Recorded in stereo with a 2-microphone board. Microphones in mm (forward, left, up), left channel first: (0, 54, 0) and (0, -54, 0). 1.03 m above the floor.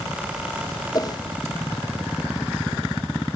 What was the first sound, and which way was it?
A whoosh, 40° left (ahead or behind).